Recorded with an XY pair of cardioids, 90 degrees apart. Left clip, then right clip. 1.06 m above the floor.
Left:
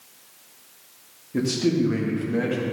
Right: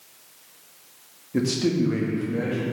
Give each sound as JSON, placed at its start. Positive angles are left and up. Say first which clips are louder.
{"t": 1.3, "sound": "a man speaking", "louder": "left 1 dB", "azimuth_deg": -20, "distance_m": 1.5}